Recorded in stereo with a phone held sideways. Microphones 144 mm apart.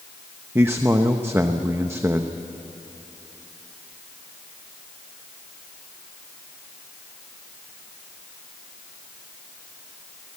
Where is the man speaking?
15° right (ahead or behind), 0.8 m.